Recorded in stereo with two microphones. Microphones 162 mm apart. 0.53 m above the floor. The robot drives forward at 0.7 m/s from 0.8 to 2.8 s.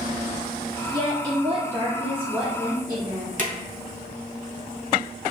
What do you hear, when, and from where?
0.9 s a woman speaking: 30° right (ahead or behind), 0.7 m; by 3.3 s 10° right (ahead or behind), 1.6 m
3.4 s a drawer: 55° right (ahead or behind), 1.0 m